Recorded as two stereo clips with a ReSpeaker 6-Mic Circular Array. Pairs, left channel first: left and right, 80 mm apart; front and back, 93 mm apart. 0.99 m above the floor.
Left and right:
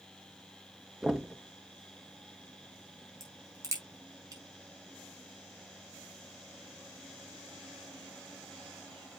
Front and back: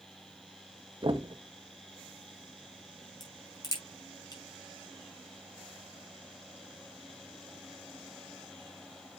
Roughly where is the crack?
Ahead right.